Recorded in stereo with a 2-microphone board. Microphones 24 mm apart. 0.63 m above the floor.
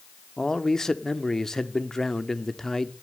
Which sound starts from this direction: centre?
A man speaking, at 0.4 s.